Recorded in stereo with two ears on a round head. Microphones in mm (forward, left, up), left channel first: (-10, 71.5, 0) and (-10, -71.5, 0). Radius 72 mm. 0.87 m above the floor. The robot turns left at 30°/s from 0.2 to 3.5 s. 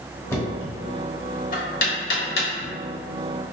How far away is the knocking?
About 1.3 m.